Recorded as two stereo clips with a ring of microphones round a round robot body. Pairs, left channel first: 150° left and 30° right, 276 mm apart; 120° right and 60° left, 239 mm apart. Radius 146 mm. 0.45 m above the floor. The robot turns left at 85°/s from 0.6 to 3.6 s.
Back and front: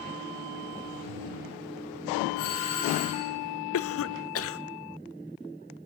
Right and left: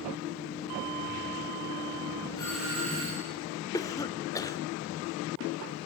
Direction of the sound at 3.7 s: 165° left.